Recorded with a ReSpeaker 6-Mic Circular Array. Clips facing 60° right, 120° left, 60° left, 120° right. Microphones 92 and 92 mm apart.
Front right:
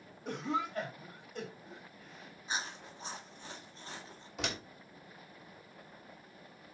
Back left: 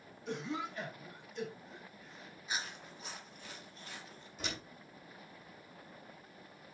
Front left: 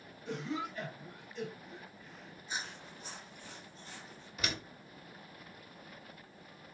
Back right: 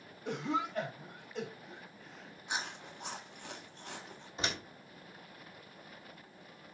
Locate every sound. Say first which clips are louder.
0.2 s a cough: front right 4 dB, back right 4 dB; 95° right, 3.5 m
2.5 s chewing: front right 2 dB, back right 3 dB; 115° right, 1.6 m
4.4 s a door slam: front right 4 dB, back right 1 dB; 60° right, 2.5 m